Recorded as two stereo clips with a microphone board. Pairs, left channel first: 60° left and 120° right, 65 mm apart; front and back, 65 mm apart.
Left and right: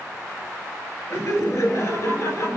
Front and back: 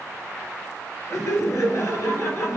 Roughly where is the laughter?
Ahead left.